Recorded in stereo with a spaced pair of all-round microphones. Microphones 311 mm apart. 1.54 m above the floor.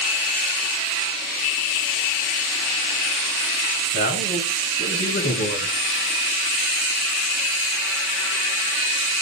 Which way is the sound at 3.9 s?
50° left (ahead or behind).